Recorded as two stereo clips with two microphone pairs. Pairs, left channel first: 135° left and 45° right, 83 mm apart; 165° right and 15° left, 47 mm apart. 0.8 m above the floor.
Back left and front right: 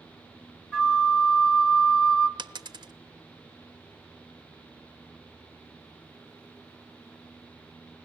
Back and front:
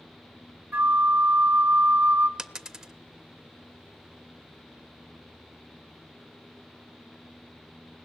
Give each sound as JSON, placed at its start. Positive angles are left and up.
{"t": 0.7, "sound": "a flute", "azimuth_deg": 60, "distance_m": 1.2}
{"t": 2.4, "sound": "a dropped coin", "azimuth_deg": -60, "distance_m": 0.9}